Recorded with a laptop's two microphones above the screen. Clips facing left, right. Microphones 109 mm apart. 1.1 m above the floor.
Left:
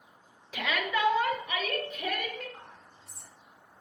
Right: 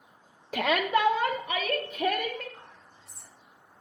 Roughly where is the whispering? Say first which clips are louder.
Left 1 dB; left.